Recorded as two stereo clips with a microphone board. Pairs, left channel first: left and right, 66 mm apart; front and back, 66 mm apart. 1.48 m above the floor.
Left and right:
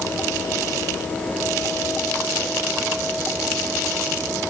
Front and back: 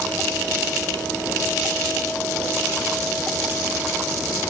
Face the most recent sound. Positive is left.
No sound to turn to.